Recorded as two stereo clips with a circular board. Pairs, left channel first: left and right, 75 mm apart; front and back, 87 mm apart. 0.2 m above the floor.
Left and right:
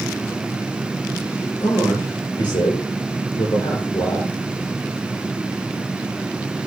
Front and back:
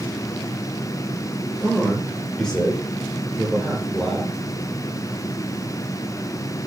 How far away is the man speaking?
About 6.5 m.